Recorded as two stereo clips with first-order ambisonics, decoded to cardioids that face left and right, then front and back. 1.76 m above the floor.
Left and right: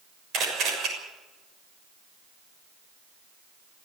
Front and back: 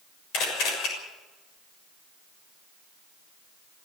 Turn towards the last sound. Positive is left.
turn(degrees=-35)